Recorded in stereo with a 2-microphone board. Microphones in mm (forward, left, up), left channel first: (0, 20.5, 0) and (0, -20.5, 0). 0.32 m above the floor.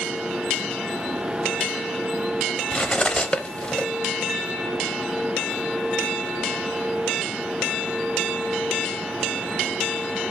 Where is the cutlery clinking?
25° left (ahead or behind), 0.7 m.